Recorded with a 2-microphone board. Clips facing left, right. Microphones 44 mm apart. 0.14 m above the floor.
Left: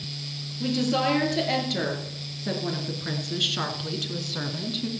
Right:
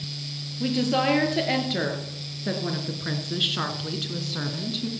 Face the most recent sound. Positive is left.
turn(degrees=0)  # may be behind; listen again after turning